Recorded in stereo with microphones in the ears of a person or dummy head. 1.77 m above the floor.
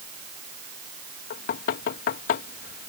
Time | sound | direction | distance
1.3 | knocking | 50° left (ahead or behind) | ?